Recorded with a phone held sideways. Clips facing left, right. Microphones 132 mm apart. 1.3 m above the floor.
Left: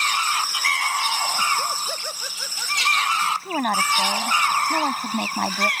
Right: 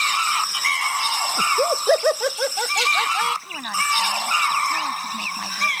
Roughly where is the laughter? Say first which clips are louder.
Right 5 dB; right.